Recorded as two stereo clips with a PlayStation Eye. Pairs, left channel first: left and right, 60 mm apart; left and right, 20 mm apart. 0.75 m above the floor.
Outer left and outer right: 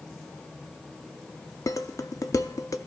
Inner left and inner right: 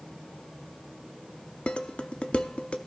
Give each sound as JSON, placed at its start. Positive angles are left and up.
{"t": 1.7, "sound": "dishes clattering", "side_deg": 70, "distance_m": 0.6}